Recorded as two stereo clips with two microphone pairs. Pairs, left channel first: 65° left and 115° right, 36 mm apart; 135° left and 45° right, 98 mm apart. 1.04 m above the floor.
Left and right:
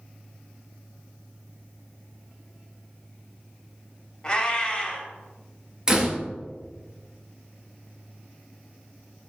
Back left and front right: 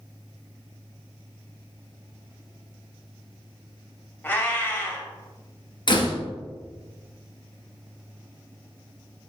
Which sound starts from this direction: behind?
A door slam, at 5.9 s.